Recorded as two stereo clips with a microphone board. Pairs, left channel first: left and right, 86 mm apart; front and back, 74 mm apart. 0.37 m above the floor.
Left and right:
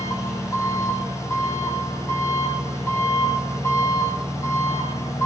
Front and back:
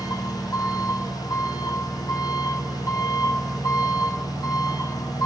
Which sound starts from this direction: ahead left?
An engine running, at 0.0 s.